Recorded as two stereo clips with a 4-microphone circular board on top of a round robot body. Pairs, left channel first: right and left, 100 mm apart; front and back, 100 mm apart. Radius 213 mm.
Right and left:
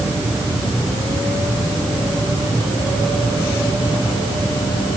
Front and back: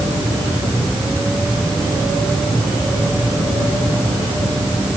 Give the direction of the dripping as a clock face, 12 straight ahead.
No dripping in this recording.